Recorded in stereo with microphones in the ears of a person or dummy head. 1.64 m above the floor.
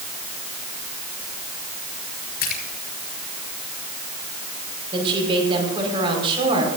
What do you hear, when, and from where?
2.4 s a splash: 50° left (ahead or behind), 4 m
4.9 s a woman speaking: 30° right (ahead or behind), 5 m